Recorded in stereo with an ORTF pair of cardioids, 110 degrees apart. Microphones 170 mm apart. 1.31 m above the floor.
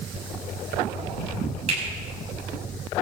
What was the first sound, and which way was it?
A finger snap, 40° right.